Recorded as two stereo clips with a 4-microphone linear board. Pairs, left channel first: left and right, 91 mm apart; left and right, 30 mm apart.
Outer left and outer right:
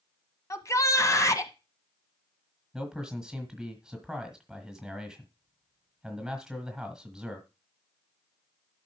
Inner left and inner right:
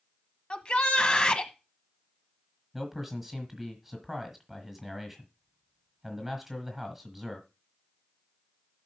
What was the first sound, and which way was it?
A shout, 35° left (ahead or behind).